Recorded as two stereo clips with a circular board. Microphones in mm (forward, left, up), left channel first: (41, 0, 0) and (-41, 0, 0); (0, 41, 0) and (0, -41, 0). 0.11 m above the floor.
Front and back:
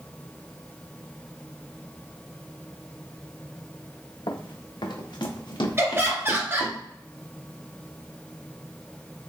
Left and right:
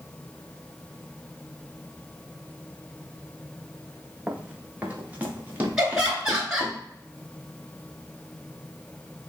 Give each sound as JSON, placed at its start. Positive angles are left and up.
{"t": 4.3, "sound": "running footsteps", "azimuth_deg": -15, "distance_m": 0.8}
{"t": 5.8, "sound": "laughter", "azimuth_deg": -165, "distance_m": 1.8}